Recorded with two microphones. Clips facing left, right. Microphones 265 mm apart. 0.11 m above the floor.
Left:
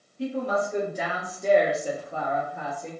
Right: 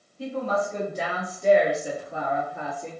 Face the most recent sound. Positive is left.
turn(degrees=-30)  # may be behind; listen again after turning